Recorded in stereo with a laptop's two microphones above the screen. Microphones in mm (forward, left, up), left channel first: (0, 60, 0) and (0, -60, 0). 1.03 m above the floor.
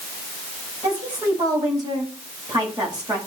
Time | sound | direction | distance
0.8 | a woman speaking | 35° right (ahead or behind) | 9.5 m